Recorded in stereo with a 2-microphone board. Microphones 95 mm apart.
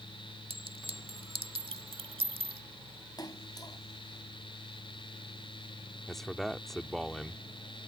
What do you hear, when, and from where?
0.5 s a clink: 80° right
3.2 s a splash: 45° left (ahead or behind)
6.1 s a man speaking: 5° left (ahead or behind)